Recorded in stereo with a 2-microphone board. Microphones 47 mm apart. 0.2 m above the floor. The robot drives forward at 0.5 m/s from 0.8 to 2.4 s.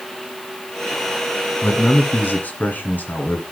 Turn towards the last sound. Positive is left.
turn(degrees=35)  # may be behind; listen again after turning